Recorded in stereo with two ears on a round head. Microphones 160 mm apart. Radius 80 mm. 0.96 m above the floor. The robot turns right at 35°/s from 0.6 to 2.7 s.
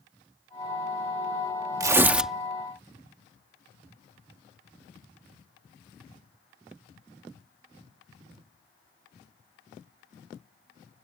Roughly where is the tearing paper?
Centre.